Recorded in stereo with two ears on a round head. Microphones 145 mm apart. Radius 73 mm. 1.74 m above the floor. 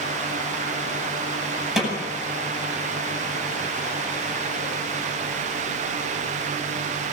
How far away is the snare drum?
About 9 m.